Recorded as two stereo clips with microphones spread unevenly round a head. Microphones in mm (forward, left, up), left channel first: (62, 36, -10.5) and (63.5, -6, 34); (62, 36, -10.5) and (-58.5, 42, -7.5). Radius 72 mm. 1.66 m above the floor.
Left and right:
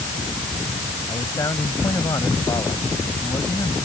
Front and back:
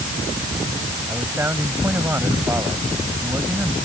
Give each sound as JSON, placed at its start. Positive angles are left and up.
{"t": 1.1, "sound": "a man speaking", "azimuth_deg": 105}